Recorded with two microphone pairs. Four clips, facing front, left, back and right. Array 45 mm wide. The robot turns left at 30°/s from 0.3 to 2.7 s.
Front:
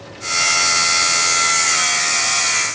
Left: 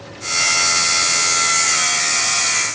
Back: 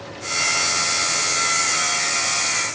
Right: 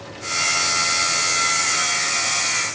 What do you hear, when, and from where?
Only background noise.